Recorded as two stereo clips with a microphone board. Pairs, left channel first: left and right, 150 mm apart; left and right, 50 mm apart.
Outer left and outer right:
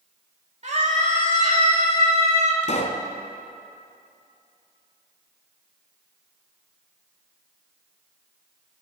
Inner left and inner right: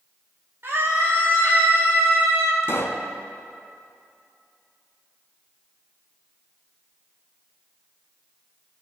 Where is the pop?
50° left (ahead or behind), 1.3 m.